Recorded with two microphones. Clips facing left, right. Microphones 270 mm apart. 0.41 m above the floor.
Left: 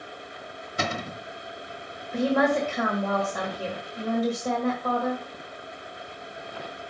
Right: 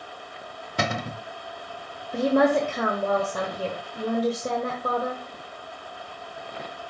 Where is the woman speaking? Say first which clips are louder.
Right 2 dB; 45° right (ahead or behind), 1.5 m.